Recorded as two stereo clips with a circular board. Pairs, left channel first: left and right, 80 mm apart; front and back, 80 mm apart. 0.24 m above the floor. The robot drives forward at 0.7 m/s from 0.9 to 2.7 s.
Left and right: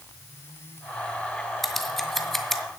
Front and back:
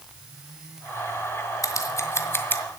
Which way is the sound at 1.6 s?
5° left.